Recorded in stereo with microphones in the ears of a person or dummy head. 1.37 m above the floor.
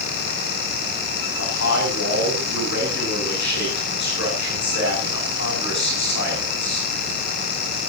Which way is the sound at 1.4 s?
70° left (ahead or behind).